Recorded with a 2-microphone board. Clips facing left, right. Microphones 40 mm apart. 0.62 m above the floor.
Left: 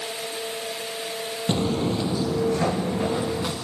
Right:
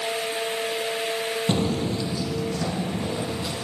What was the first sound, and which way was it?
Footsteps, 5° right (ahead or behind).